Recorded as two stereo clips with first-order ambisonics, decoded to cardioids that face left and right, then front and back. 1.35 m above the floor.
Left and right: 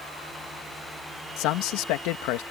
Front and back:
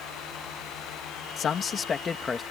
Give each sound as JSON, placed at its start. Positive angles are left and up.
{"t": 1.4, "sound": "a man speaking", "azimuth_deg": 60}